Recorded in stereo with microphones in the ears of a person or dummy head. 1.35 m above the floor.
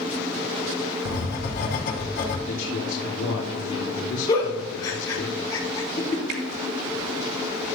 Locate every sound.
1.1 s writing: 60° left (ahead or behind), 4 m
2.5 s a man speaking: 75° left (ahead or behind), 3 m
4.3 s a giggle: 20° left (ahead or behind), 3 m
6.3 s a finger snap: 65° right (ahead or behind), 2.0 m